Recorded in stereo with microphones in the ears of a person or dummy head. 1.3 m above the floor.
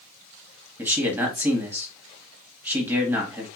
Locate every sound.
0.8 s a man speaking: 15° right (ahead or behind), 1.7 m